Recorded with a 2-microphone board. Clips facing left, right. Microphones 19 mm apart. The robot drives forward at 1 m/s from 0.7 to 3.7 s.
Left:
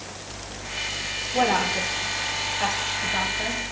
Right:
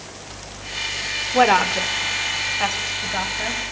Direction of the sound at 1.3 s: 45° right (ahead or behind).